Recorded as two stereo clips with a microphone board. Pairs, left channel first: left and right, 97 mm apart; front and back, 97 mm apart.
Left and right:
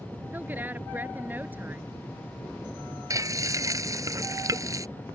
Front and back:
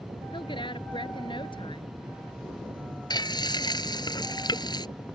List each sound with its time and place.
0.3 s a woman speaking: 20° right
3.1 s frying: 40° right